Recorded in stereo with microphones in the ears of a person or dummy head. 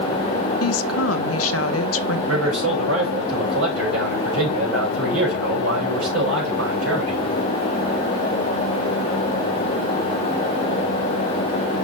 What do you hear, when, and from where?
0.6 s a woman speaking: 70° left (ahead or behind), 0.7 m
2.3 s a man speaking: 75° right (ahead or behind), 5 m